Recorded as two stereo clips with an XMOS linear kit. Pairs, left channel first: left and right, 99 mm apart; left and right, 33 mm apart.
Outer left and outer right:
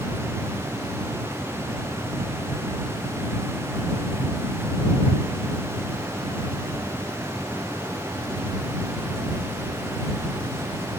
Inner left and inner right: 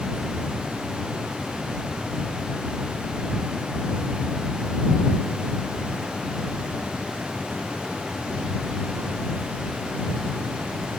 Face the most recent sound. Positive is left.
No sound to turn to.